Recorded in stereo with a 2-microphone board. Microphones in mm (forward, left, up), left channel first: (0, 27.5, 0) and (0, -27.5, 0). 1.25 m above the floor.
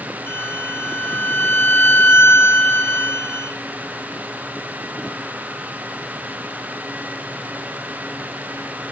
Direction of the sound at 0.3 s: 45° left (ahead or behind).